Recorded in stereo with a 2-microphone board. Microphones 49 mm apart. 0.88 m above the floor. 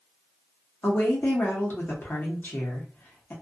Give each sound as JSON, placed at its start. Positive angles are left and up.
{"t": 0.8, "sound": "a woman speaking", "side_deg": 35, "distance_m": 0.8}